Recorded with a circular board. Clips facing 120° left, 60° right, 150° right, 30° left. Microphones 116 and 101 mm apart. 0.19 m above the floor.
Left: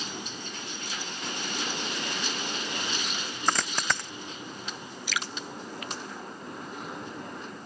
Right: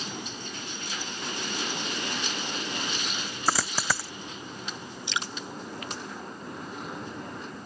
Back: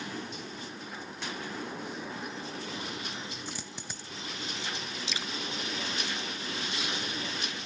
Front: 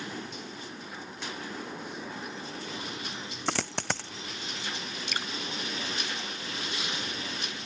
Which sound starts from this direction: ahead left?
A dropped coin, at 3.5 s.